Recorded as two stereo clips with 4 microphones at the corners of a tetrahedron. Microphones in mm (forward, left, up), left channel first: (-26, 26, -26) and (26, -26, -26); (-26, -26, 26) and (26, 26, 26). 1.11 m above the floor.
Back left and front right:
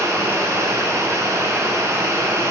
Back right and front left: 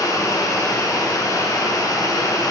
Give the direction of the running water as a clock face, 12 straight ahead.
3 o'clock.